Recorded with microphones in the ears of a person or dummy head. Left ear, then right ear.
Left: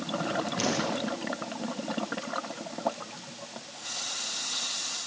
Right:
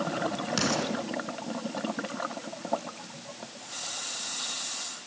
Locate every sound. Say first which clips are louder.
0.6 s an explosion: right 3 dB; 75° right (ahead or behind), 7 m